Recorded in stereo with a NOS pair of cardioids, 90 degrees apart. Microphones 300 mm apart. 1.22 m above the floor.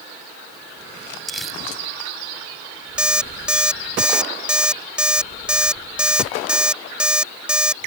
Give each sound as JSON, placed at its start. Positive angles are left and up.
{"t": 1.3, "sound": "crumpling", "azimuth_deg": 0}
{"t": 3.0, "sound": "an alarm clock", "azimuth_deg": -5}